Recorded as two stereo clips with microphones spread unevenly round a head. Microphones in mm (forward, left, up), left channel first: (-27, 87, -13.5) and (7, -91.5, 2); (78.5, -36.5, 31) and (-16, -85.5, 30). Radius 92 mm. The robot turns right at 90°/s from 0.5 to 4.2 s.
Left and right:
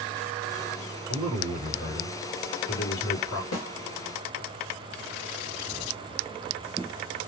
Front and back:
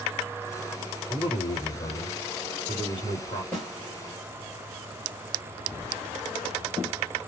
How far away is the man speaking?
About 2.5 m.